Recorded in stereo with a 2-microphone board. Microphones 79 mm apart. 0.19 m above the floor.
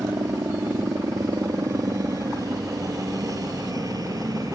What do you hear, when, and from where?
0.0 s a helicopter: 45° right (ahead or behind); by 4.6 s 50° right (ahead or behind)